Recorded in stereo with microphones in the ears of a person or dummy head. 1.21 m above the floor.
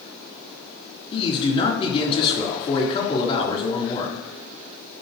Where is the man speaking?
30° left (ahead or behind), 3 m.